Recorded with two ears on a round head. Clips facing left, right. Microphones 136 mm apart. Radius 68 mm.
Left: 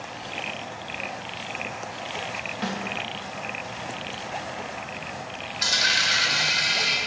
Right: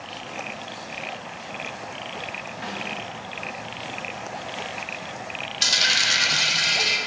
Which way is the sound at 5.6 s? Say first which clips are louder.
Left 1 dB; 30° right (ahead or behind).